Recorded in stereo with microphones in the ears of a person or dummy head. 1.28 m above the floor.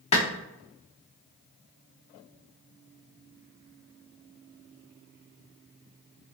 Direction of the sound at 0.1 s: 25° left (ahead or behind).